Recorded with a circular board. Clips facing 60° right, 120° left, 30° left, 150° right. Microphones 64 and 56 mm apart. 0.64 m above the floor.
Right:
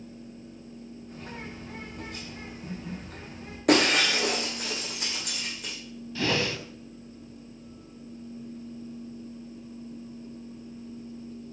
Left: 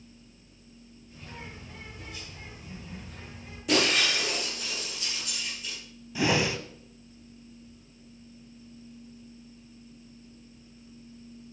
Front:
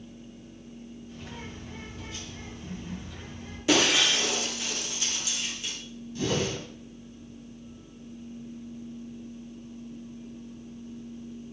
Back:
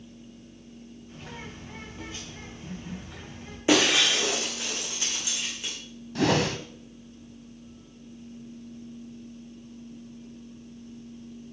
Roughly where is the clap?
No clap in this recording.